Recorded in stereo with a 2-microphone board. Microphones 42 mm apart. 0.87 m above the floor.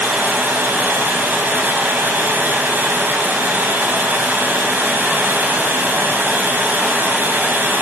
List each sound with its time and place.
0.0 s running water: 55° right (ahead or behind), 4 m